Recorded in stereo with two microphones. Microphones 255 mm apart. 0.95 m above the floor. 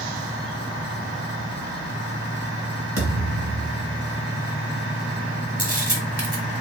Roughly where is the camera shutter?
Right.